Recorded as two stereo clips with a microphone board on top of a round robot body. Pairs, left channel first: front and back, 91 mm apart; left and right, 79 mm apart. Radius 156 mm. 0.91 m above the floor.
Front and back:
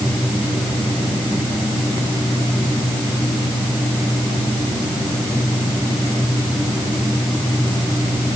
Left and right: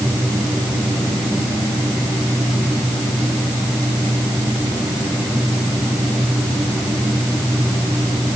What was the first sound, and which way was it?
Only background noise.